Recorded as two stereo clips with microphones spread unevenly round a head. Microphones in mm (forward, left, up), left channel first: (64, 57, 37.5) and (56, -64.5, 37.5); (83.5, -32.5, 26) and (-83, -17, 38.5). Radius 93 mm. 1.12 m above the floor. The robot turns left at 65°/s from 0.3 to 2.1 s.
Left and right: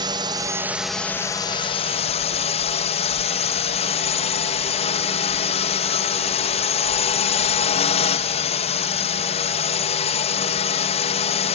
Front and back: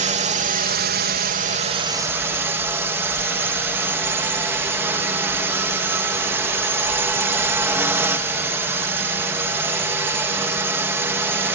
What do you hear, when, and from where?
0.0 s a drone: 145° right; by 11.6 s 95° left